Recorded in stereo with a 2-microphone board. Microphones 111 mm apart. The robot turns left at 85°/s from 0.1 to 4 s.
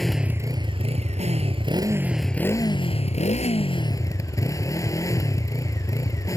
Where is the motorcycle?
Straight ahead; by 6.4 s 30° left.